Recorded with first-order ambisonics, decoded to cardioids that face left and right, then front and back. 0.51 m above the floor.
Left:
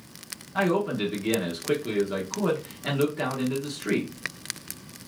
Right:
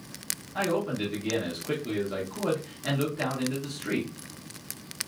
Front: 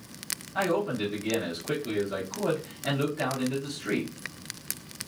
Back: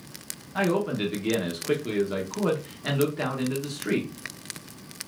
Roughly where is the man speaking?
Behind left.